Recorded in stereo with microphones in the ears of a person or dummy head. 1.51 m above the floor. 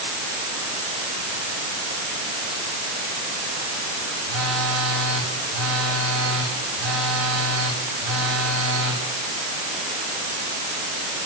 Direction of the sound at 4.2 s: 75° right (ahead or behind).